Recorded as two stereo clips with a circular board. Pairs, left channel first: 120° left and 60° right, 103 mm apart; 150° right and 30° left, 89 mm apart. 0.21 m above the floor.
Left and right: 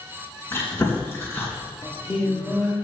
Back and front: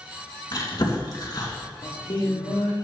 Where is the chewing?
Straight behind, 2.5 m.